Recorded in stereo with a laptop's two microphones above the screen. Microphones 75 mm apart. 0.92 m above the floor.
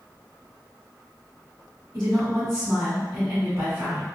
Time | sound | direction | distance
1.9 | a woman speaking | 35° right (ahead or behind) | 1.3 m